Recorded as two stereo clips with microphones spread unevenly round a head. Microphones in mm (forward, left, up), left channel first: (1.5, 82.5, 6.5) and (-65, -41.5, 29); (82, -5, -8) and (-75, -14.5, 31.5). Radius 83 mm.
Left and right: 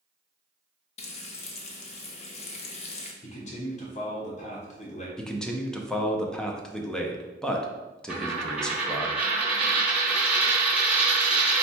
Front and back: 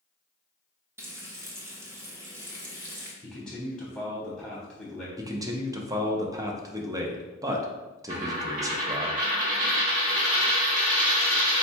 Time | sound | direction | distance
1.0 | frying | 110° left | 0.7 m
3.2 | a man speaking | 80° left | 1.1 m
5.2 | a man speaking | 110° left | 0.6 m
8.1 | a dropped coin | 170° left | 1.4 m